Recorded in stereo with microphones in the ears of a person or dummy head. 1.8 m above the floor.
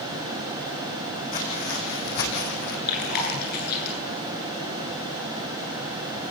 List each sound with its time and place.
1.3 s footsteps: 40° left (ahead or behind), 6.5 m; by 2.8 s 55° left (ahead or behind), 5.5 m
2.9 s chewing: 55° left (ahead or behind), 9.5 m